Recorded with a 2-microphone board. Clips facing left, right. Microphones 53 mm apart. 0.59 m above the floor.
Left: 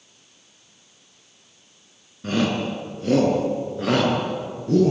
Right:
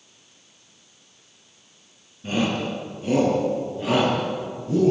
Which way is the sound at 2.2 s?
80° left.